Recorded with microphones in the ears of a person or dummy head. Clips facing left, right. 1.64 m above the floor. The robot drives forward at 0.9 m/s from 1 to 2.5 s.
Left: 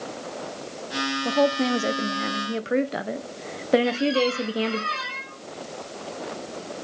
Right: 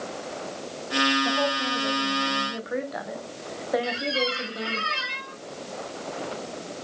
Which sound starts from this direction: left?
A woman speaking, at 1.2 s.